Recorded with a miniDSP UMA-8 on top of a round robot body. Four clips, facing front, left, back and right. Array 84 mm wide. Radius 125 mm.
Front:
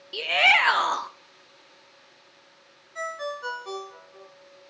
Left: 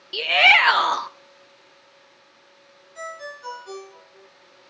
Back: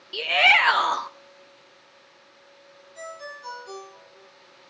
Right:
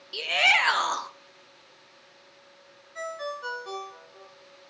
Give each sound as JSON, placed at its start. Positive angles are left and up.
{"t": 0.1, "sound": "a shout", "azimuth_deg": 95, "distance_m": 0.8}
{"t": 3.0, "sound": "a ringtone", "azimuth_deg": -25, "distance_m": 3.0}